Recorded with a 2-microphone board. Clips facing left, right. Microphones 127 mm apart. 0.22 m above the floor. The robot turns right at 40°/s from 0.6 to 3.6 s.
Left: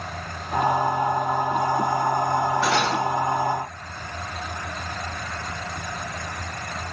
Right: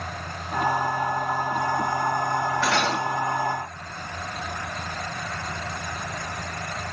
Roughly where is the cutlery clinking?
Centre.